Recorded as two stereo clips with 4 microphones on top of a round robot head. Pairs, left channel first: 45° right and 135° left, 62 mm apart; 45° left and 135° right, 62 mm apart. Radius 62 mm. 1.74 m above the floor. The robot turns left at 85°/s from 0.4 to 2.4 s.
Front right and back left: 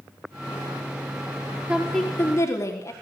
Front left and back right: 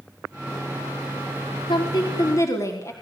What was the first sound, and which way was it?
A woman speaking, 60° left.